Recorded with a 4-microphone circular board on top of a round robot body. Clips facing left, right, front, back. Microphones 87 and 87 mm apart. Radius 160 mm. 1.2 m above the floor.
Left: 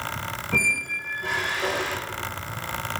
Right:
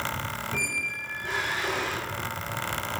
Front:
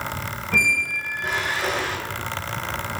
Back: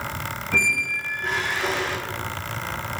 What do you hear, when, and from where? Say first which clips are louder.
0.5 s a squeak: left 5 dB, front 2 dB; 85° left, 0.8 m